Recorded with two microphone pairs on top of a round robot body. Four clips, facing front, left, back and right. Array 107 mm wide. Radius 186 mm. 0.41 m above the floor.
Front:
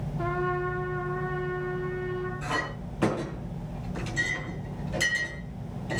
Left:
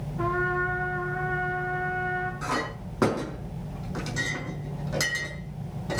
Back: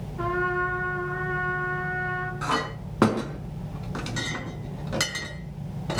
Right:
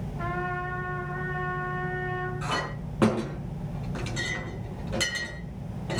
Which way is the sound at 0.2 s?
165° left.